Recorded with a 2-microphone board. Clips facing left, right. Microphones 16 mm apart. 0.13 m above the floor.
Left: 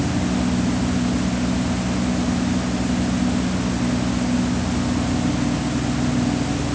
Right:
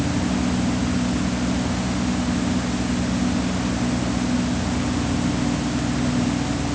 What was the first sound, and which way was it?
Only background noise.